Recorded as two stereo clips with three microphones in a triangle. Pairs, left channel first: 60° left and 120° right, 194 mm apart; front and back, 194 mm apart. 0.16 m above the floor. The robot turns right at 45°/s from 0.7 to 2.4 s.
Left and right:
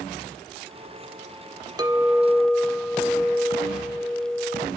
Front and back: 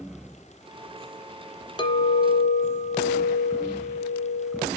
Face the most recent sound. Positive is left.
turn(degrees=-30)